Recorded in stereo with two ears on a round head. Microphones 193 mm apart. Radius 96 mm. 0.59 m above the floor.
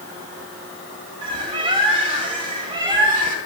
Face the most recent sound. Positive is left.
turn(degrees=-25)  # may be behind; listen again after turning